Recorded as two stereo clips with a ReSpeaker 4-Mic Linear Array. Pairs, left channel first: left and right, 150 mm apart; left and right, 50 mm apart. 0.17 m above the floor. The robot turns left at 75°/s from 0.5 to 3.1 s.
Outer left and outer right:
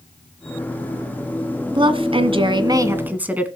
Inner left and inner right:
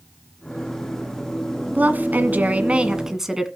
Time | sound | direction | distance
1.7 | a woman speaking | 60° right | 1.4 m